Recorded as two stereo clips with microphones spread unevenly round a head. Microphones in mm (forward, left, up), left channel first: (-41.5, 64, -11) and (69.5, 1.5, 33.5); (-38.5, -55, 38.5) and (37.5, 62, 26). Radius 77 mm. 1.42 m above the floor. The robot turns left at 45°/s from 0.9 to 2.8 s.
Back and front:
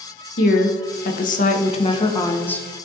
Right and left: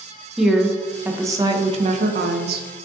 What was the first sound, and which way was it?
A woman speaking, 145° left.